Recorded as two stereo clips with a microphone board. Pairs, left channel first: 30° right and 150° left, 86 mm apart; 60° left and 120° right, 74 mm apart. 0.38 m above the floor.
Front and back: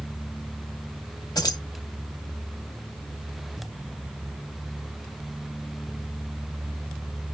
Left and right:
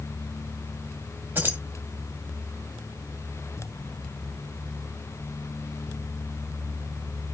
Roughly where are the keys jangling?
Ahead right.